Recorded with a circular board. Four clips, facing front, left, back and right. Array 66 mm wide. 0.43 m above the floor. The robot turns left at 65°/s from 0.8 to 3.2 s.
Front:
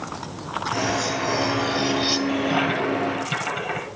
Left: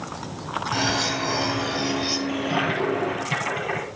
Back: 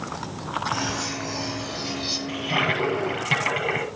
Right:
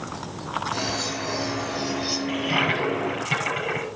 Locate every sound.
0.7 s cutlery clinking: 90° left, 1.7 m; by 2.2 s straight ahead, 1.7 m
2.3 s a toilet flushing: 110° right, 9 m; by 3.9 s 170° right, 9 m